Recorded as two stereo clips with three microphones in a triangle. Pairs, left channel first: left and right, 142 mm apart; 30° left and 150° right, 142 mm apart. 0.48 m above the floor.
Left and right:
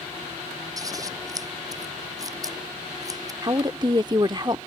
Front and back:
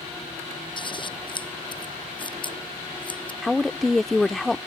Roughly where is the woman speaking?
Ahead right.